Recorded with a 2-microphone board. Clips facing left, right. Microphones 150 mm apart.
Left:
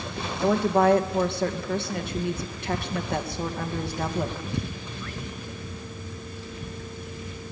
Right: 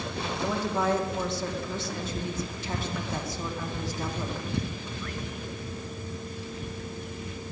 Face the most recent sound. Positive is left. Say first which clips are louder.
# left 8 dB
turn(degrees=65)  # may be behind; listen again after turning